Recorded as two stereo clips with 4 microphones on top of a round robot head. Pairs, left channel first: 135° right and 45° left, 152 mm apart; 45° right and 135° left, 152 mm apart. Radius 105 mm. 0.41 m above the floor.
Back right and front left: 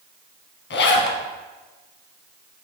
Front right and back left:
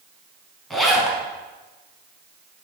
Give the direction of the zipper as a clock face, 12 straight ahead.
4 o'clock.